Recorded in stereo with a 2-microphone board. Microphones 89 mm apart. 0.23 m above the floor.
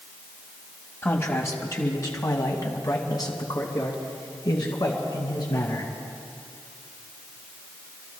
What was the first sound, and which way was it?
A man speaking, 25° left (ahead or behind).